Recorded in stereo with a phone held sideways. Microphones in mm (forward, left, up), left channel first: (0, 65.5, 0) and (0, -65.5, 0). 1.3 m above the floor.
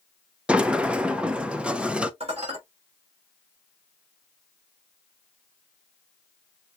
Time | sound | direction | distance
0.5 | a sliding door | 5° right (ahead or behind) | 0.6 m
2.2 | dishes clattering | 55° right (ahead or behind) | 3.5 m